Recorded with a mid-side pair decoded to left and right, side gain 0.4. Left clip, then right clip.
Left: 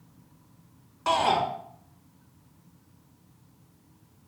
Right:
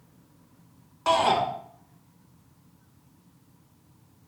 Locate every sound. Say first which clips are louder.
1.1 s a shout: right 2 dB; 15° right, 2 m